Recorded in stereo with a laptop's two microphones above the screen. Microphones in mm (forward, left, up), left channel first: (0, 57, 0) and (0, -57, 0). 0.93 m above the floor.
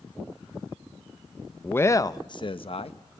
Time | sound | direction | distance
1.6 | a man speaking | 15° left (ahead or behind) | 0.7 m